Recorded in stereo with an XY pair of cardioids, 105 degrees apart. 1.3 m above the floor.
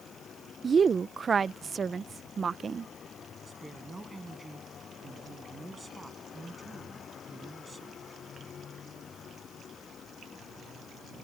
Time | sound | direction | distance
0.6 | a woman speaking | 35° right | ?
3.5 | a woman speaking | 20° right | ?